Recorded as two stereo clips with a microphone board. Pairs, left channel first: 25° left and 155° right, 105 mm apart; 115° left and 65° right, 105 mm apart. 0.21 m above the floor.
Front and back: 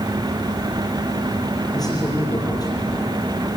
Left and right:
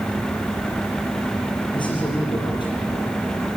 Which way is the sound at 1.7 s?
75° left.